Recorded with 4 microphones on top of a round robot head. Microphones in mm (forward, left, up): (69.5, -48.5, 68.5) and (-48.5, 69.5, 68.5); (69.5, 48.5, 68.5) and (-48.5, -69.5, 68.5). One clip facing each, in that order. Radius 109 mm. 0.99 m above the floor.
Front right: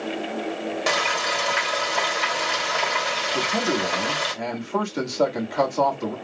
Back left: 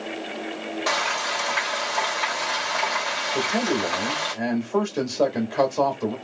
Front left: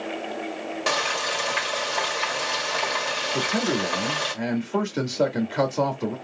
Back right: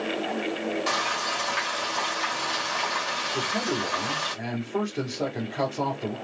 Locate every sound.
0.9 s frying: 20° left, 2 m
3.3 s a man speaking: 40° left, 1.9 m